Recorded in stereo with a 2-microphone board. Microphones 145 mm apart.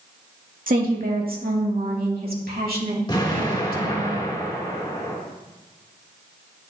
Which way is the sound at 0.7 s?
70° right (ahead or behind).